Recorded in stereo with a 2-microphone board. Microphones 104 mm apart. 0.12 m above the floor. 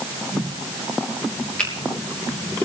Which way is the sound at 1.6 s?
10° left (ahead or behind).